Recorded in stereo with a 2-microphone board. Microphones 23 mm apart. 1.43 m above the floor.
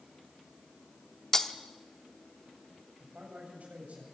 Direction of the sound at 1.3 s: 20° left (ahead or behind).